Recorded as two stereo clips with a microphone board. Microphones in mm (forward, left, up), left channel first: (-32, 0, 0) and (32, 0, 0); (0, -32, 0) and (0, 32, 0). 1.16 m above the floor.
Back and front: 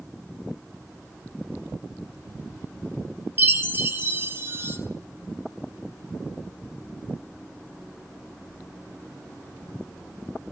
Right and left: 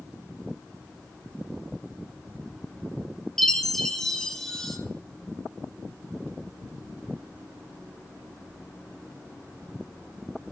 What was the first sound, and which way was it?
A chime, 10° right.